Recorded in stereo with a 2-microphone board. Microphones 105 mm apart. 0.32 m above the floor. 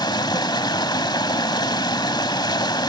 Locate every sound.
0.0 s running water: 45° left (ahead or behind), 1.3 m